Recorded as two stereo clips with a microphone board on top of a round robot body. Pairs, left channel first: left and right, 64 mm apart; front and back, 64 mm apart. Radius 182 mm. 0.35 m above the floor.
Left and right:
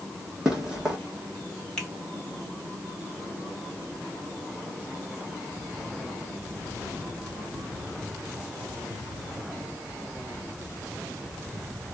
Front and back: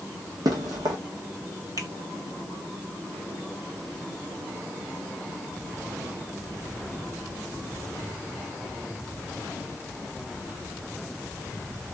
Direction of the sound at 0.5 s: 170° right.